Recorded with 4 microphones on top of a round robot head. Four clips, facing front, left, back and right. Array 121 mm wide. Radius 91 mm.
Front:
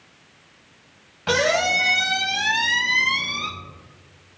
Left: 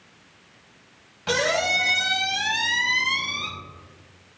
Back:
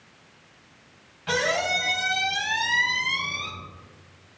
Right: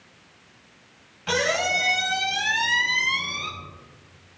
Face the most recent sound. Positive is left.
turn(degrees=15)